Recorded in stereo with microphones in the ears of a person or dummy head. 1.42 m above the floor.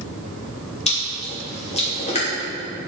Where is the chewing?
35° left (ahead or behind), 3 m.